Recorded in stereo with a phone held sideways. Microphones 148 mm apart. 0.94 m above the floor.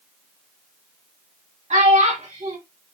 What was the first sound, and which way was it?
A child speaking, 55° right (ahead or behind).